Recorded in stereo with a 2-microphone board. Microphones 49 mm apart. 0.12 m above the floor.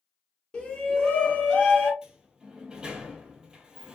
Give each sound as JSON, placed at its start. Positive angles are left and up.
{"t": 0.5, "sound": "a shout", "side_deg": 20, "distance_m": 1.1}
{"t": 2.0, "sound": "a sliding door", "side_deg": -15, "distance_m": 0.7}